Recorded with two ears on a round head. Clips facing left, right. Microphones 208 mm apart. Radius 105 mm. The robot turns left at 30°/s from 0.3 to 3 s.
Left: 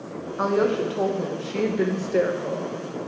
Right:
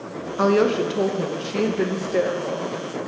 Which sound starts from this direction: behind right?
A woman speaking, at 0.4 s.